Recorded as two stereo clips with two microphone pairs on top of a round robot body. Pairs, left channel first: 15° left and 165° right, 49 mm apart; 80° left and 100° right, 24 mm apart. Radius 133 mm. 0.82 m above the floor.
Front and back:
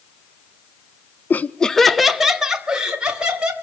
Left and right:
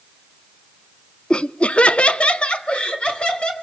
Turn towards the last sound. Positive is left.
turn(degrees=125)